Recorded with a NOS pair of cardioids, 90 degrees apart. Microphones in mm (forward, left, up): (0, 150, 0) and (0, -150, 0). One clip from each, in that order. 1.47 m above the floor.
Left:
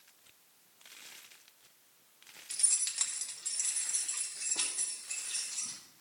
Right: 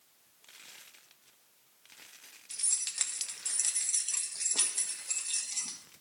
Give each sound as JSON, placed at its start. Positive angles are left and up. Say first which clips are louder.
{"t": 2.5, "sound": "keys jangling", "louder": "left 1 dB", "azimuth_deg": 10, "distance_m": 1.1}